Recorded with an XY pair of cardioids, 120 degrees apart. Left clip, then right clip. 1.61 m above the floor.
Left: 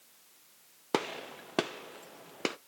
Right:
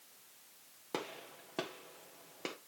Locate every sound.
0.9 s a gunshot: 55° left, 0.7 m